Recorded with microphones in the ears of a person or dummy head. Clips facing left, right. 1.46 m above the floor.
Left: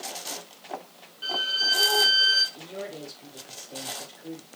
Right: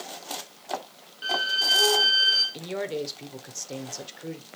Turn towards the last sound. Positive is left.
turn(degrees=-75)  # may be behind; listen again after turning